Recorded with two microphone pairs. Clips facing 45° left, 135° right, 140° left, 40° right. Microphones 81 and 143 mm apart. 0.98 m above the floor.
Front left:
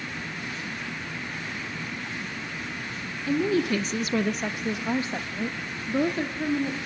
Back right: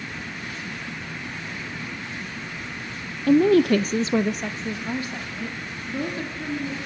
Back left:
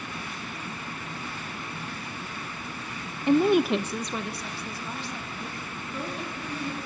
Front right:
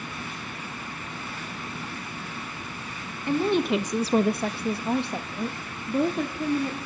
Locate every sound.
3.3 s a woman speaking: 155° right, 0.8 m; by 6.8 s 5° right, 2.5 m